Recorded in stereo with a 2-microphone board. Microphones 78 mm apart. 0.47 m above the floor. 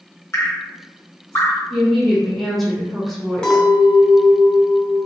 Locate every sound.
0.3 s dripping: 35° left (ahead or behind), 0.9 m
1.7 s a woman speaking: centre (ahead or behind), 1.1 m
3.4 s a clink: 10° left (ahead or behind), 0.8 m